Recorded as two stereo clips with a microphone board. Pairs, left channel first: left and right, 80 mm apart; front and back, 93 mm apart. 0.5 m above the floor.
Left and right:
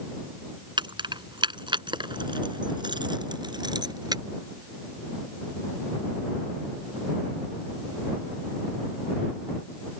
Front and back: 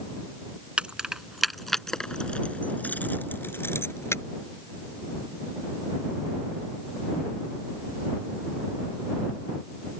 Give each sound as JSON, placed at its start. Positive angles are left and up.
{"t": 0.8, "sound": "keys jangling", "azimuth_deg": -100}